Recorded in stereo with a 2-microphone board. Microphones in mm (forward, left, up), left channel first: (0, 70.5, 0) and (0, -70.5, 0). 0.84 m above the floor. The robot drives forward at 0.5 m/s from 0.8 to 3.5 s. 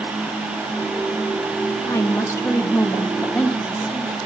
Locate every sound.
1.9 s a woman speaking: 20° left (ahead or behind), 0.7 m; by 4.1 s 10° left (ahead or behind), 1.2 m